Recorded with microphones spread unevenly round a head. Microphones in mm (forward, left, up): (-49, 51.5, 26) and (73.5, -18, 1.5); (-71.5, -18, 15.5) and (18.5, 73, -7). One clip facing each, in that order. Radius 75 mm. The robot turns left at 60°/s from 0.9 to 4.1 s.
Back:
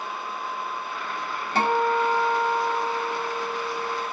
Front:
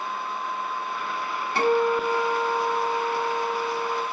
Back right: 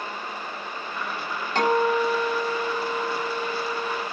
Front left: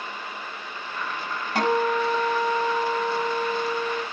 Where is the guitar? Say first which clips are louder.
Front 1 dB, back right 1 dB; 130° left, 5.5 m; by 4.0 s 20° right, 5.5 m.